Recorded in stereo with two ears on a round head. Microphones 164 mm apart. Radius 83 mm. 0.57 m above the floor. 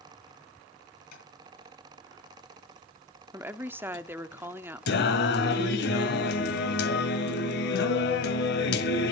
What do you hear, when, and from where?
1.1 s tapping: 55° left (ahead or behind), 5.5 m
3.3 s a woman speaking: 10° right (ahead or behind), 0.8 m
4.9 s singing: 65° left (ahead or behind), 1.6 m